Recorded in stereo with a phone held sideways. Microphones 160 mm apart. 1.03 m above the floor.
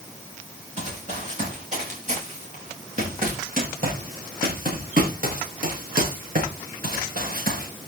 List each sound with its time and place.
0.8 s running footsteps: 50° right (ahead or behind), 9 m; by 7.7 s 70° right (ahead or behind), 5.5 m